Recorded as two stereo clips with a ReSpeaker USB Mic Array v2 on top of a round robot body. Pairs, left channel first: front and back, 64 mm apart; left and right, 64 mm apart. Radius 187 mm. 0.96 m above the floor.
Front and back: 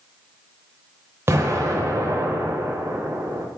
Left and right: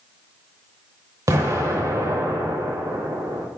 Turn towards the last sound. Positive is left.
turn(degrees=-125)